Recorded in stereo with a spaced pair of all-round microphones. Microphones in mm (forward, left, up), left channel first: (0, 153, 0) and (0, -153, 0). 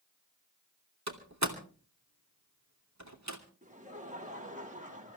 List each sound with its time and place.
1.1 s a door slam: 60° right (ahead or behind), 2.5 m
3.6 s laughter: 25° right (ahead or behind), 2.5 m